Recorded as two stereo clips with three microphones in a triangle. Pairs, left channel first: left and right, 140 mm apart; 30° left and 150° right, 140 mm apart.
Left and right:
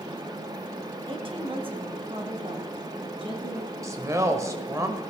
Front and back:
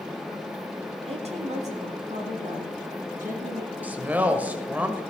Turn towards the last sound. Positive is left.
turn(degrees=-95)